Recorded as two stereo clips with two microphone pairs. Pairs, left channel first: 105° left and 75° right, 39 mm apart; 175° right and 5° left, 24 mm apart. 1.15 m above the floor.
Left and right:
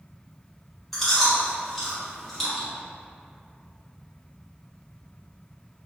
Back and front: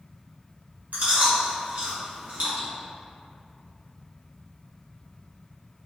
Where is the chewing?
15° left, 1.3 m.